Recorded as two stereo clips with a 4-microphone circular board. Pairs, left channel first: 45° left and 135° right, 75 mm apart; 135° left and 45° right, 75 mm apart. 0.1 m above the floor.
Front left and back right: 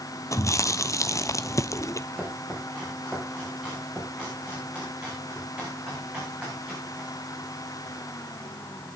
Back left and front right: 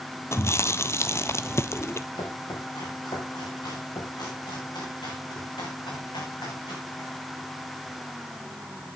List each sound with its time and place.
0.3 s chewing: 85° left, 0.6 m
2.1 s chopping: 150° left, 9.5 m